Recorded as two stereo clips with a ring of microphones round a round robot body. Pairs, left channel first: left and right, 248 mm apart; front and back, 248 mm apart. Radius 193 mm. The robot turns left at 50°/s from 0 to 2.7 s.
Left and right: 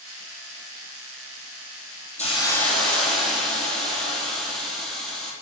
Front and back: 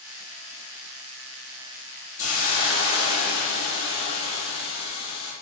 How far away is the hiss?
About 3 m.